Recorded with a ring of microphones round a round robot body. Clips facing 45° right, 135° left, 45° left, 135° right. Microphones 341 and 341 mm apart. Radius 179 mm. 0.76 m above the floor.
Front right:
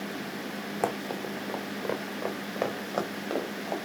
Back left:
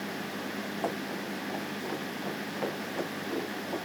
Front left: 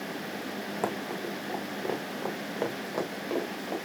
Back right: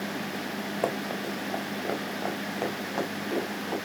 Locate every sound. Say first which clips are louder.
0.8 s running footsteps: front right 5 dB, back right 2 dB; 30° right, 2.5 m; by 3.8 s 40° right, 5.5 m